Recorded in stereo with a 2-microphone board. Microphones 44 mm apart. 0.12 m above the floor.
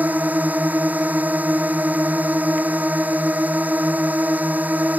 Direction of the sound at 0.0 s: 40° right (ahead or behind).